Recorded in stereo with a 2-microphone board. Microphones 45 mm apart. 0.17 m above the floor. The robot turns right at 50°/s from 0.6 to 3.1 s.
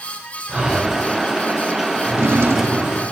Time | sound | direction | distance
0.5 | breathing | 20° right (ahead or behind) | 2.5 m
2.0 | a drawer | 125° right | 2.5 m